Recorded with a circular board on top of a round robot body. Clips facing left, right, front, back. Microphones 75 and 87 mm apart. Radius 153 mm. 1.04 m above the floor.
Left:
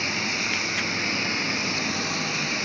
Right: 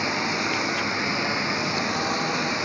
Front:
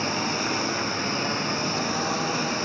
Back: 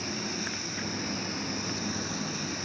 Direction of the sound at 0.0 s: 30° right.